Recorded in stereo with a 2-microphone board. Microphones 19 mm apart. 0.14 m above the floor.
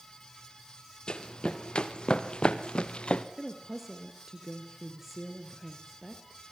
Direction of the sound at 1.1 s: 50° left (ahead or behind).